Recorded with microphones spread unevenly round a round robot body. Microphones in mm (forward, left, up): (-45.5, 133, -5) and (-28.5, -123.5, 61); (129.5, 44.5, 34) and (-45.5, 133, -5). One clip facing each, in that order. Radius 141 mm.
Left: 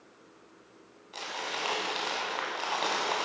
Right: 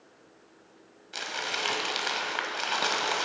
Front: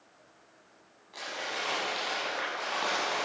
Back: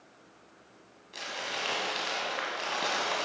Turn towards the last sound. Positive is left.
turn(degrees=-135)